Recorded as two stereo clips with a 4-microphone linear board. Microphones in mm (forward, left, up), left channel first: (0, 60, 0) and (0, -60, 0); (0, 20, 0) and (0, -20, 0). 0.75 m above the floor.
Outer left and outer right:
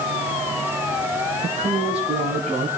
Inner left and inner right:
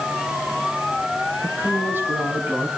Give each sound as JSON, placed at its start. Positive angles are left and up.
{"t": 1.4, "sound": "a woman speaking", "side_deg": -55, "distance_m": 6.5}